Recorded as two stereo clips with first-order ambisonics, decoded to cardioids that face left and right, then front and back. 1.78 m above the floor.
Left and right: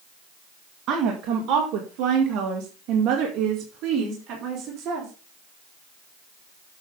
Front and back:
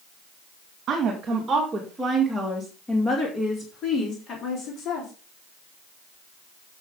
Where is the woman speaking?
125° right, 1.9 m; by 5.1 s 45° right, 3.5 m.